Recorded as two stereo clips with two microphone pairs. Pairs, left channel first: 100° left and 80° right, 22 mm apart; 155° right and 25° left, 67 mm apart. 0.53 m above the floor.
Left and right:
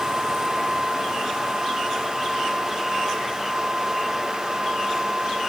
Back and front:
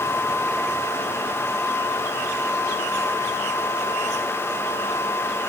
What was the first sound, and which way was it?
Only background noise.